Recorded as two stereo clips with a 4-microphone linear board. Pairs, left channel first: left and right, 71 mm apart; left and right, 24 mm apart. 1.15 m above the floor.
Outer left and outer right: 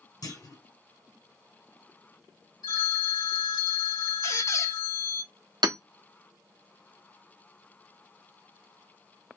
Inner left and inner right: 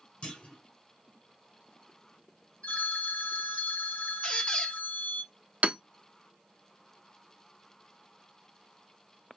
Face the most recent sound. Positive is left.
turn(degrees=-75)  # may be behind; listen again after turning